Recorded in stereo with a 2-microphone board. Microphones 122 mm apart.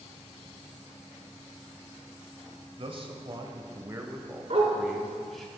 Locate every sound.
2.8 s a man speaking: 50° right (ahead or behind), 1.2 m; by 5.5 s 5° left (ahead or behind), 1.7 m
4.5 s a dog barking: 60° right (ahead or behind), 2.0 m